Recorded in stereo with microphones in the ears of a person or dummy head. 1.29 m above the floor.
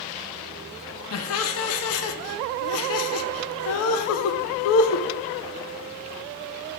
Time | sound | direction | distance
1.1 | laughter | 75° left (ahead or behind) | 0.6 m